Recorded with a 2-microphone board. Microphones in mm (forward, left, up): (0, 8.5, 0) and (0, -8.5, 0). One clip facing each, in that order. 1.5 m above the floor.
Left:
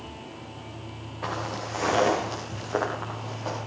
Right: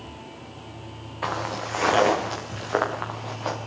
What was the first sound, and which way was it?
Footsteps, 50° right (ahead or behind).